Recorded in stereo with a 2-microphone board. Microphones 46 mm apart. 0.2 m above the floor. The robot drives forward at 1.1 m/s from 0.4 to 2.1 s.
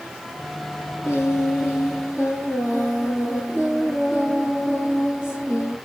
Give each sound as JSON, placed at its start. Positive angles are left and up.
{"t": 1.0, "sound": "singing", "side_deg": 65, "distance_m": 3.5}